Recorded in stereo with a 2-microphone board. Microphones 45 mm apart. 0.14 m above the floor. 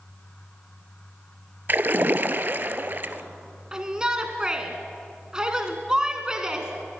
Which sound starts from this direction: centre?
A shout, at 3.7 s.